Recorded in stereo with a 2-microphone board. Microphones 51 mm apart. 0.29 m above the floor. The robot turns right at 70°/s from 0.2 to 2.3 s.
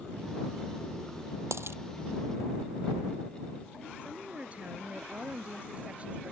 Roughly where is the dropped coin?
Right.